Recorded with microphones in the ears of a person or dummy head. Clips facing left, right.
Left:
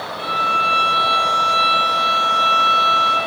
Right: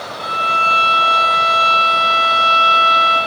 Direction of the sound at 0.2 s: 25° left (ahead or behind).